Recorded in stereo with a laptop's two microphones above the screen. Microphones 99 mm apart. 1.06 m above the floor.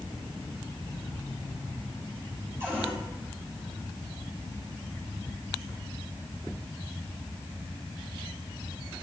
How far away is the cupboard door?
About 4.5 m.